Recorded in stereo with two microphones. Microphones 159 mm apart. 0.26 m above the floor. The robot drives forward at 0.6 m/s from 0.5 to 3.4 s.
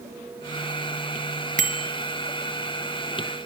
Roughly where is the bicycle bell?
Right.